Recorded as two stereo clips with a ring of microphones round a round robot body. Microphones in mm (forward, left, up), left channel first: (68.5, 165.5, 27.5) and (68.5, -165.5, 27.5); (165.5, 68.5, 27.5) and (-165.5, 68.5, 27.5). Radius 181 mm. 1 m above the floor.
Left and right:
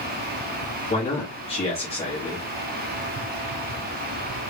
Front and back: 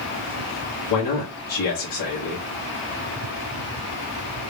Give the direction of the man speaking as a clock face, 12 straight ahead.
11 o'clock.